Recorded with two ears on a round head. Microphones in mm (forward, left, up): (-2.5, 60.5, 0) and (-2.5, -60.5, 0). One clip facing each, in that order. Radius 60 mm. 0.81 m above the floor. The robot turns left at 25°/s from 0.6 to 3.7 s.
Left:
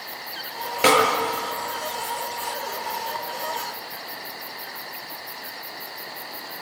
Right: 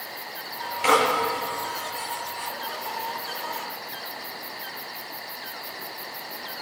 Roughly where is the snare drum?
Left.